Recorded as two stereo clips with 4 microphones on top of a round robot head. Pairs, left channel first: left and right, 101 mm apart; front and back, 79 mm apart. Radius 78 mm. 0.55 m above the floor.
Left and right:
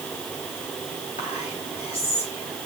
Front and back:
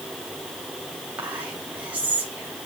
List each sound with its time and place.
1.2 s whispering: 110° left, 3 m